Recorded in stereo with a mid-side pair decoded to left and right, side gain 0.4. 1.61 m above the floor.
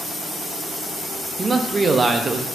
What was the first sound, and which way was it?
A man speaking, 35° right.